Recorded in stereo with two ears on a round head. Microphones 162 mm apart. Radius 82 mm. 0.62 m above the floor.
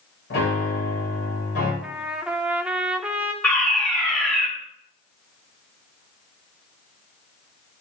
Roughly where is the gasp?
I don't hear a gasp.